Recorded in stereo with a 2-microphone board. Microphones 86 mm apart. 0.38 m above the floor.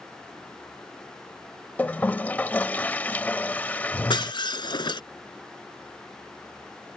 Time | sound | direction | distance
1.8 | a toilet flushing | 20° left (ahead or behind) | ?
4.1 | breaking glass | 65° left (ahead or behind) | ?